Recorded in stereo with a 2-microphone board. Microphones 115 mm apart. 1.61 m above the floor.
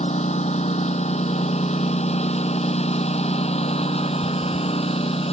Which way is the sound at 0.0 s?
75° left (ahead or behind).